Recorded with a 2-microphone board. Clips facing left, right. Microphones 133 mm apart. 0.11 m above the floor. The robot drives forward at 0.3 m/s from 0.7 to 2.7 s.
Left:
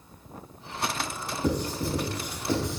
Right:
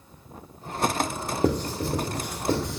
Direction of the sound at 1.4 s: 65° right (ahead or behind).